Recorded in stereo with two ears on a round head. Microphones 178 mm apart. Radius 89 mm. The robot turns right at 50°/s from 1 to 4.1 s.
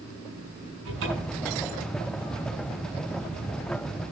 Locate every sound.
0.8 s a cupboard door: 70° right (ahead or behind), 7 m; by 1.5 s 45° right (ahead or behind), 7 m